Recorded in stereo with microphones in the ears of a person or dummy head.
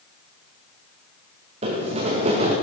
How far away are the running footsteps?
About 3 m.